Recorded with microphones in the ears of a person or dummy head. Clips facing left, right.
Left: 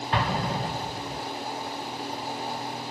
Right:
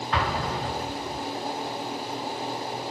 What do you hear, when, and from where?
0.1 s an explosion: 25° left (ahead or behind), 1.6 m